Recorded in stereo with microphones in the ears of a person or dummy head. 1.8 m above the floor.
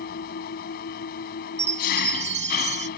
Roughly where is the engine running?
Left.